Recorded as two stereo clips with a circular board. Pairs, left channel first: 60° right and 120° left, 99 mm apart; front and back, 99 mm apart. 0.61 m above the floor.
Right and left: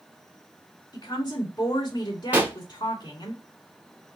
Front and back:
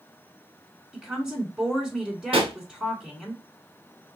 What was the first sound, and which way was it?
A woman speaking, 100° right.